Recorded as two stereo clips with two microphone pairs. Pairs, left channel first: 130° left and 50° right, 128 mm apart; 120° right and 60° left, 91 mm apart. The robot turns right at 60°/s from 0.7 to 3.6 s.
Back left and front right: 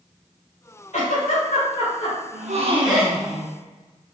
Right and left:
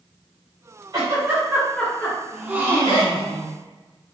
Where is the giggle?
105° left, 1.7 m; by 3.1 s 120° right, 1.7 m.